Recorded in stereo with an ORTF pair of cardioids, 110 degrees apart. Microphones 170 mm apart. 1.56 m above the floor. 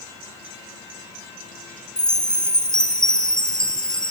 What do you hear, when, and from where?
2.0 s a chime: 5° left, 0.6 m